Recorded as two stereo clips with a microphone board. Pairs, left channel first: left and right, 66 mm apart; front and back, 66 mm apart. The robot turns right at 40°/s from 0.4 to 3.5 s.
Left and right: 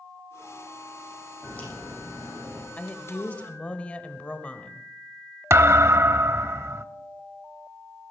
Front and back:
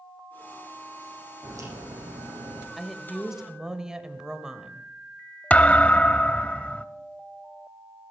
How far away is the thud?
About 0.6 m.